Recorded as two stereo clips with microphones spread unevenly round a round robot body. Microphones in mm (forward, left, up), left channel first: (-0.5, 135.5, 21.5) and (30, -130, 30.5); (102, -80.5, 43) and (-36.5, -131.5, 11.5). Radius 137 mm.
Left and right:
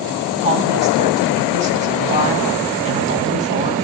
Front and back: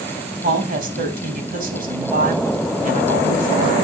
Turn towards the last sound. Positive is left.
turn(degrees=-150)